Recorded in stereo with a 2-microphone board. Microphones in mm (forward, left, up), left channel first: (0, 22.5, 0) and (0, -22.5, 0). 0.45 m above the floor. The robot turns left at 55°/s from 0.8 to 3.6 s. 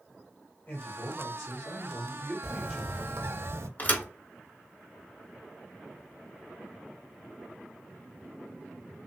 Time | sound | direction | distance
0.7 | a man speaking | 100° left | 1.4 m
2.4 | a bird | 15° right | 0.5 m
3.8 | a thud | 35° left (ahead or behind) | 0.8 m